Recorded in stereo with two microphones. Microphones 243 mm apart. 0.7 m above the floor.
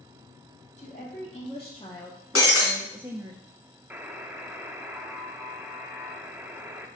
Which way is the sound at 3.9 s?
10° right (ahead or behind).